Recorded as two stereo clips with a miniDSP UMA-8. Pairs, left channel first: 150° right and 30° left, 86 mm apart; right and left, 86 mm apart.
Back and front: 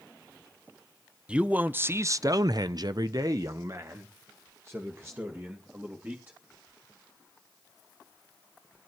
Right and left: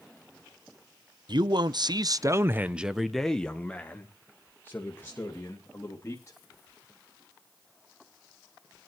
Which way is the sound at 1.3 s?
105° left.